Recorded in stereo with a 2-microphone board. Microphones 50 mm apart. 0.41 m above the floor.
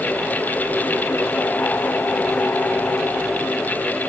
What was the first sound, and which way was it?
Only background noise.